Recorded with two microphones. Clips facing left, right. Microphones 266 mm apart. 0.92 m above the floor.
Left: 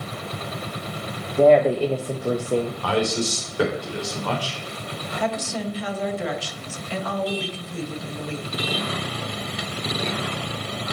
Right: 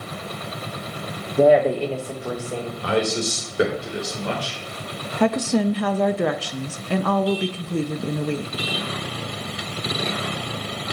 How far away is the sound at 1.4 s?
About 0.8 m.